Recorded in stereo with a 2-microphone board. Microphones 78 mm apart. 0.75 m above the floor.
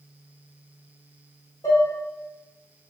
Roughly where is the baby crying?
No baby crying in this recording.